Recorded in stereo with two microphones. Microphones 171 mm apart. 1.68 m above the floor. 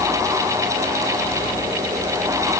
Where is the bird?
No bird in this recording.